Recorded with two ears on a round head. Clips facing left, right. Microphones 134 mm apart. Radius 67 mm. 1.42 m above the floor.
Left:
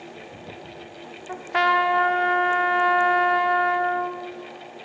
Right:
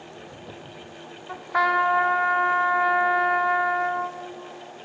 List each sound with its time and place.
1.3 s a trumpet: 30° left (ahead or behind), 0.8 m